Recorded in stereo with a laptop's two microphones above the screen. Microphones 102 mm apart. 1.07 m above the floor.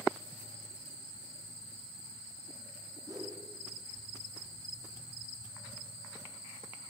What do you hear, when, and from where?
3.1 s a whoosh: 35° right (ahead or behind), 2.5 m